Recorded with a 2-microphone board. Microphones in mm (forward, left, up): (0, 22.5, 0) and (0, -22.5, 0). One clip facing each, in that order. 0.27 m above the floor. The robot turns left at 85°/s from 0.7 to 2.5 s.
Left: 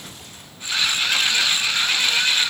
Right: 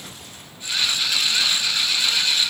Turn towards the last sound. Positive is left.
No sound to turn to.